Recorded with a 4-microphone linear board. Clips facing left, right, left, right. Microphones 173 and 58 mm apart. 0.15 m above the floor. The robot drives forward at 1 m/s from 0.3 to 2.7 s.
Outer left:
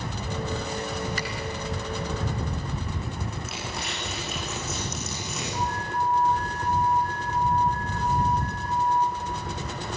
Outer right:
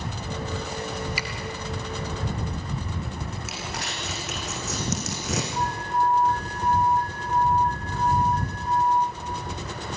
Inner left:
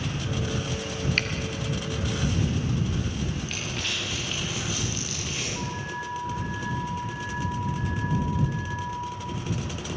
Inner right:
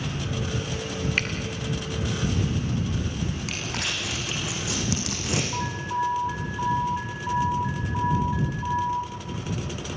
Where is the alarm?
80° right, 7.5 m.